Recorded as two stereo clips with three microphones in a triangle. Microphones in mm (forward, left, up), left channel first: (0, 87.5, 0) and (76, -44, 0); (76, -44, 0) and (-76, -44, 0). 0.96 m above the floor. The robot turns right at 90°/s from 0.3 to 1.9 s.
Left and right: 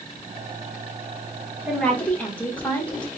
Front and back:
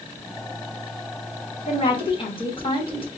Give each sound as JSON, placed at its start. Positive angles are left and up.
{"t": 1.7, "sound": "a woman speaking", "azimuth_deg": 20, "distance_m": 1.2}